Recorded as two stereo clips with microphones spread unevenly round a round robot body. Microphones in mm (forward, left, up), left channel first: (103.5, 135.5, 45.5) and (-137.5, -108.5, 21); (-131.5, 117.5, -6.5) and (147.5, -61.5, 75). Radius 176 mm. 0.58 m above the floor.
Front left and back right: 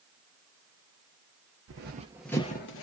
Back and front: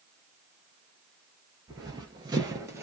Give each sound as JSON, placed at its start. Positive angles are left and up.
{"t": 1.7, "sound": "running footsteps", "azimuth_deg": -95, "distance_m": 0.7}